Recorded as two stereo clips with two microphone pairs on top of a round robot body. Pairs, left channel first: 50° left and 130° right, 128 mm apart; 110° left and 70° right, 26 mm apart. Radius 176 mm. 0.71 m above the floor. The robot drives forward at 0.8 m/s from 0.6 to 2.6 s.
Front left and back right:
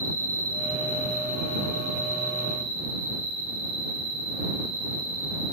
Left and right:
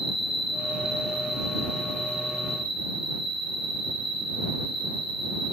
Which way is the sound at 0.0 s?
135° right.